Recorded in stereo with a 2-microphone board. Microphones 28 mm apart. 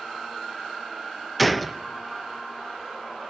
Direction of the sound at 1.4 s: 5° left (ahead or behind).